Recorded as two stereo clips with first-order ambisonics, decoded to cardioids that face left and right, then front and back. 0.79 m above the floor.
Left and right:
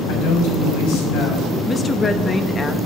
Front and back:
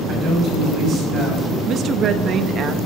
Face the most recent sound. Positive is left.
turn(degrees=155)